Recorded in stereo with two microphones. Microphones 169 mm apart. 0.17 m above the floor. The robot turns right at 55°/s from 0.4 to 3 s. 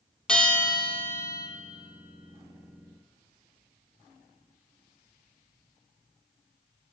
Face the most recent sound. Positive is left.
turn(degrees=150)